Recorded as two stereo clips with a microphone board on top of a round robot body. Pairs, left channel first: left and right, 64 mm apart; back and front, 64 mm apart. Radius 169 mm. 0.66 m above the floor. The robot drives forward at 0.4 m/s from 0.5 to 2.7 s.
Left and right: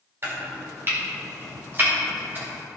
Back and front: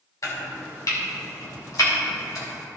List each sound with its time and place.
0.2 s chopping: 140° right, 2.5 m; by 2.5 s 150° right, 3 m